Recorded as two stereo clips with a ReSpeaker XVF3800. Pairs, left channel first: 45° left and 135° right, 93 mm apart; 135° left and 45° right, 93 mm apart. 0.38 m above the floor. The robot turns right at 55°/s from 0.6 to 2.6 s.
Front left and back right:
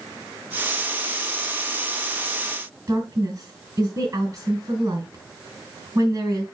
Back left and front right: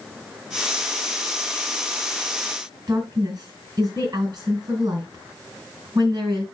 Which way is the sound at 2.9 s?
85° right.